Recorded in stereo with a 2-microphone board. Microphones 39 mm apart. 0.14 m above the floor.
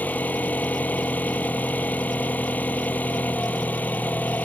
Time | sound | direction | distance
0.0 | an engine running | 50° left (ahead or behind) | ?